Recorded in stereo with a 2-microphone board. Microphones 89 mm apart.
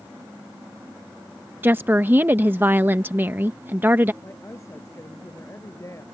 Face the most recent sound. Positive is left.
turn(degrees=30)  # may be behind; listen again after turning